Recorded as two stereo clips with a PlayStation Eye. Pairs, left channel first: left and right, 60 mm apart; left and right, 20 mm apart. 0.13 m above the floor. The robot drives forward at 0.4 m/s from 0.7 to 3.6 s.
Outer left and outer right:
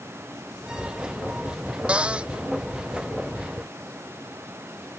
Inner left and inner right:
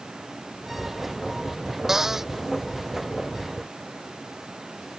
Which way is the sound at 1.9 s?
20° right (ahead or behind).